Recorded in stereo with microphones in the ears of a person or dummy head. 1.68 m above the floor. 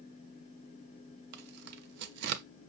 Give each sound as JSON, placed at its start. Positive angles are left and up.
{"t": 1.3, "sound": "tearing paper", "side_deg": -60, "distance_m": 0.6}